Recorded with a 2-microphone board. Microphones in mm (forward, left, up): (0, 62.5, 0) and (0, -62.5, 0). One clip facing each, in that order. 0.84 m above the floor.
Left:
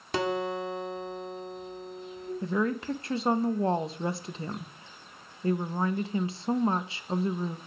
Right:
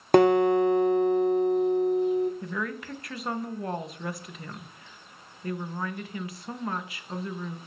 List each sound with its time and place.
0.1 s a guitar: 60° right (ahead or behind), 0.8 m
2.4 s a woman speaking: 30° left (ahead or behind), 0.6 m